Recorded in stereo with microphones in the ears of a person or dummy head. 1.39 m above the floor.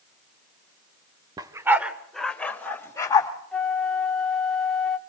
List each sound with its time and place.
1.4 s a dog barking: 20° right (ahead or behind), 1.6 m; by 3.3 s 15° left (ahead or behind), 3.5 m
3.5 s a flute: 5° left (ahead or behind), 1.4 m